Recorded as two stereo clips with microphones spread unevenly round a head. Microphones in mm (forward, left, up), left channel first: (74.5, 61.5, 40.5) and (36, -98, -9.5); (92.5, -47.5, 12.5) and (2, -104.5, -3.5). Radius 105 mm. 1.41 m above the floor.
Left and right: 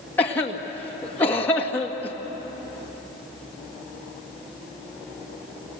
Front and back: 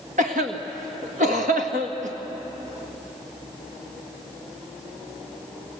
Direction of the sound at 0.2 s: 155° left.